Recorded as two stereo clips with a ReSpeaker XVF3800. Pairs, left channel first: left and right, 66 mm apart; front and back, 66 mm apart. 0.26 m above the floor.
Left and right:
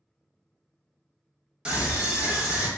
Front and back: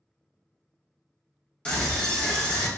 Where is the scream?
40° right, 1.0 m.